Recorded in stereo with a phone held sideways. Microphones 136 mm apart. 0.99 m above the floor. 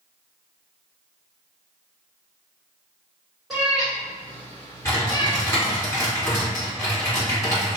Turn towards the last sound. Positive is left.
turn(degrees=25)  # may be behind; listen again after turning